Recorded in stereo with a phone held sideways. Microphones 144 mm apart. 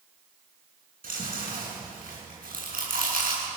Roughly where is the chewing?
Right.